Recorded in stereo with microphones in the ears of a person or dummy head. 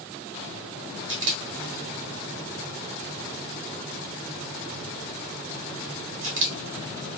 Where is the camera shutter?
75° right (ahead or behind), 1.5 m.